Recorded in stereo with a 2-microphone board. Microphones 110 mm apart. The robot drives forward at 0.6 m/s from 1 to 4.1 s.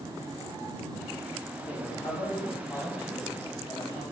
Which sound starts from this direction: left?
A man speaking, at 1.6 s.